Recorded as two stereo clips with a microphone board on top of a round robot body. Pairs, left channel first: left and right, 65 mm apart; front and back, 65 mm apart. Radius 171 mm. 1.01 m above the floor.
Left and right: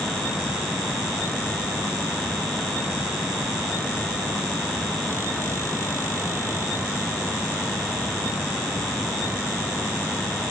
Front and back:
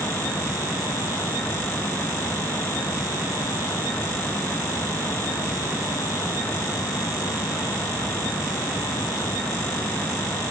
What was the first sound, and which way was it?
Only background noise.